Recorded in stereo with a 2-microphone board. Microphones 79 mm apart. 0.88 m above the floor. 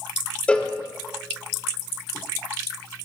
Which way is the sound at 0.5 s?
15° left (ahead or behind).